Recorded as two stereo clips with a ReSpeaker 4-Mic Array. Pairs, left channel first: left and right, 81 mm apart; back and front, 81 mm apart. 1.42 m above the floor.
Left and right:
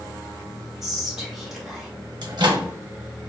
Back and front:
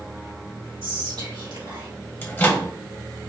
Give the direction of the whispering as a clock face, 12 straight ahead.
12 o'clock.